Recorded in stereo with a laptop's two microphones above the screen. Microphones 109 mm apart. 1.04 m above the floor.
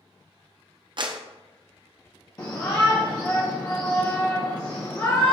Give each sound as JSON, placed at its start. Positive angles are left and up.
{"t": 1.0, "sound": "a clap", "side_deg": -45, "distance_m": 0.5}
{"t": 2.4, "sound": "a shout", "side_deg": 35, "distance_m": 0.8}